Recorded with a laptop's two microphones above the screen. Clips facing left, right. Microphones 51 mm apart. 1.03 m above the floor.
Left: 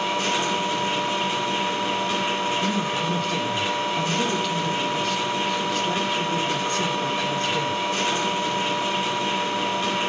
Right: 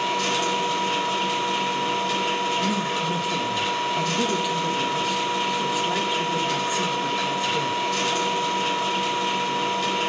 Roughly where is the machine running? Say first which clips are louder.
Even; left.